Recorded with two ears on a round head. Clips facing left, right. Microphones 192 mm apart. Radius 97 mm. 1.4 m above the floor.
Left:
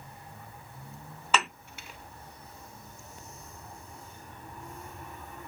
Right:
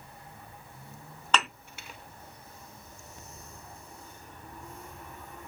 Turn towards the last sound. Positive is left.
turn(degrees=5)  # may be behind; listen again after turning